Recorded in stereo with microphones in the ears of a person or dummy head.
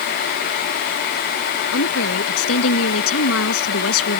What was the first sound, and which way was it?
A woman speaking, 80° left.